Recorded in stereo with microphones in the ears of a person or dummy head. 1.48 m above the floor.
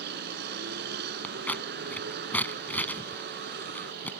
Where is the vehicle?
60° right (ahead or behind).